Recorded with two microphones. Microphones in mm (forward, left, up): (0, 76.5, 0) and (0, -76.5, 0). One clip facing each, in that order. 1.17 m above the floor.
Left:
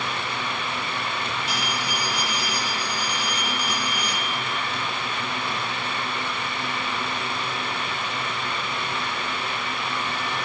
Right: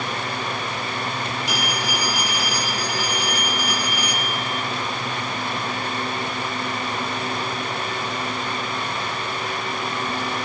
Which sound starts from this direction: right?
A phone ringing, at 1.5 s.